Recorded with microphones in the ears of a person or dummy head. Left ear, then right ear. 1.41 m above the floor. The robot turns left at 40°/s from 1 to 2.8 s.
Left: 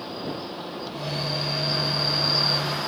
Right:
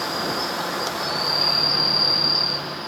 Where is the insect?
130° right; by 2.9 s 160° left.